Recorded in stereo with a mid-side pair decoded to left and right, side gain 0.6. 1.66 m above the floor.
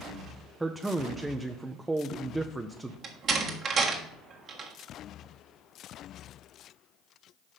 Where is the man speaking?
10° right, 0.5 m.